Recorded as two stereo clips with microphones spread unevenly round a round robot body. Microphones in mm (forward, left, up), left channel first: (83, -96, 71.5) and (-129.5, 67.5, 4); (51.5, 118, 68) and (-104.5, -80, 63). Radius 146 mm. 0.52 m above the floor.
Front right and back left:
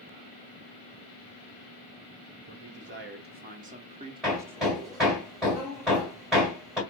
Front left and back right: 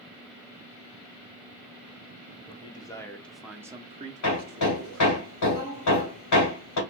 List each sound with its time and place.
2.5 s a man speaking: 120° left, 1.2 m; by 5.2 s 130° right, 1.1 m
4.2 s hammering: 55° left, 2.0 m